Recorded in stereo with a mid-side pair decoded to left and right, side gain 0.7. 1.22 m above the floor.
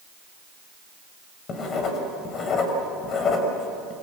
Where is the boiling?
I don't hear boiling.